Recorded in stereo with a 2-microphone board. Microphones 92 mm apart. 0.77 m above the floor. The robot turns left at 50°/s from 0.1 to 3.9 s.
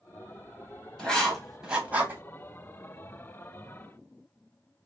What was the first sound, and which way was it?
Writing, 10° left (ahead or behind).